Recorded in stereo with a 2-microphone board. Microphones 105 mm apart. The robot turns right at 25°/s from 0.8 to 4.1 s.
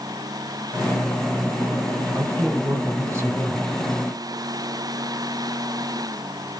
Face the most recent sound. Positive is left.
turn(degrees=-25)